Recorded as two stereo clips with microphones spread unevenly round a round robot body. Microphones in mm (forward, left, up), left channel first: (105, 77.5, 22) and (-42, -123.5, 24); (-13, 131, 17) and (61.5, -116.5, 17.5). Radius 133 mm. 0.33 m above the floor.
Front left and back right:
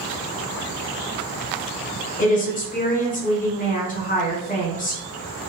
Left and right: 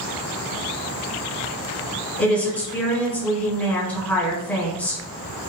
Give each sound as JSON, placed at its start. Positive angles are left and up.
{"t": 2.2, "sound": "a woman speaking", "azimuth_deg": 25, "distance_m": 1.3}